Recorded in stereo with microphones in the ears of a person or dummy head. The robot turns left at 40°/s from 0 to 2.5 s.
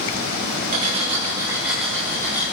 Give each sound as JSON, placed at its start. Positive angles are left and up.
{"t": 0.7, "sound": "cutlery clinking", "azimuth_deg": -140, "distance_m": 2.5}